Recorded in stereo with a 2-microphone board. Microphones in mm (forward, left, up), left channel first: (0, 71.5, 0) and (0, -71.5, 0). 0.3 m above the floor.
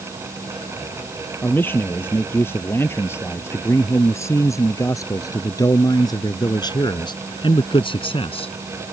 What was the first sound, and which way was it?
A man speaking, 15° left (ahead or behind).